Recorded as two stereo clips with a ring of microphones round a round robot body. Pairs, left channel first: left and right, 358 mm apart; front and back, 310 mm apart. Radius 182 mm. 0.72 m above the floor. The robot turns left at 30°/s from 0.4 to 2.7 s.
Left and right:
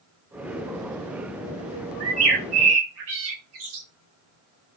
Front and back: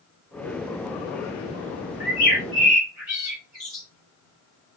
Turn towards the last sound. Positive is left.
turn(degrees=-95)